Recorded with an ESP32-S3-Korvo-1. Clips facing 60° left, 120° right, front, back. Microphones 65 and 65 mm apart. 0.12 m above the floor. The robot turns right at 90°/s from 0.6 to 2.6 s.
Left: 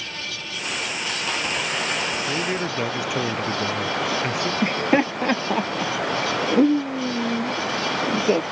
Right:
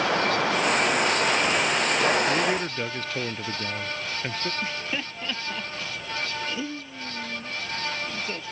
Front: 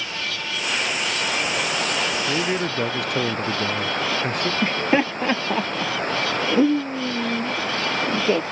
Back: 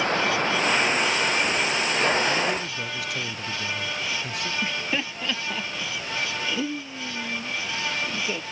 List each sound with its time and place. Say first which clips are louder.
0.0 s running water: right 11 dB, back 7 dB; 135° right; by 8.5 s 45° left
2.3 s a man speaking: right 1 dB, front 2 dB; 45° right; by 4.5 s 15° right
4.6 s laughter: left 12 dB, front 11 dB; 40° left